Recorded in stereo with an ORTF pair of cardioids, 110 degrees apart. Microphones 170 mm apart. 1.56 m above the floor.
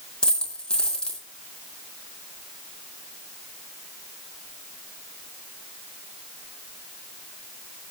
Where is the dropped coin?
5° left, 4 m.